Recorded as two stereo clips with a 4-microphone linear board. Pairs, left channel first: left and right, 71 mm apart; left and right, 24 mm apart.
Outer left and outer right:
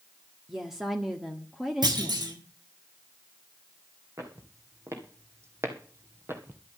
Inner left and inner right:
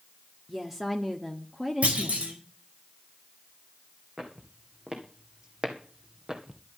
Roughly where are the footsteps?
Right.